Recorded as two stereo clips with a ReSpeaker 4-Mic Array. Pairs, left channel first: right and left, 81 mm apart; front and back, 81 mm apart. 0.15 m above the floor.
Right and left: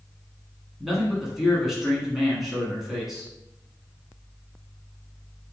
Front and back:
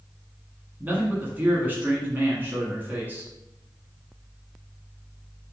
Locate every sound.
0.8 s a man speaking: 175° left, 1.3 m